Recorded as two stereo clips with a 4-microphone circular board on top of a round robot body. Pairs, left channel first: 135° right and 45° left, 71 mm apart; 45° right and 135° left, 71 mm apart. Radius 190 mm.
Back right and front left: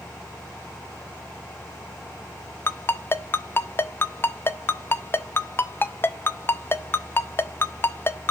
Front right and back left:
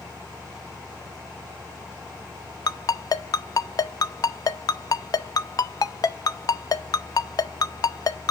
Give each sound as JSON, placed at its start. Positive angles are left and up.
{"t": 2.7, "sound": "a ringtone", "azimuth_deg": -75, "distance_m": 0.6}